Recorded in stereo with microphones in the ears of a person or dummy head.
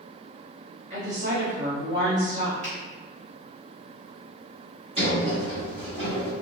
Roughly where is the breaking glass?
No breaking glass in this recording.